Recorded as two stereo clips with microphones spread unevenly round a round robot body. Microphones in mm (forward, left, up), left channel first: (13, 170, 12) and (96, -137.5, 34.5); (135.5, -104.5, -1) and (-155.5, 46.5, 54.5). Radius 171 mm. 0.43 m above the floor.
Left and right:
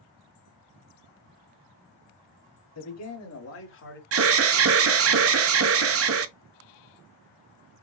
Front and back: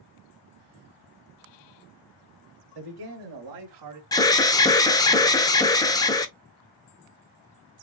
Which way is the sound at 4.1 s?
85° right.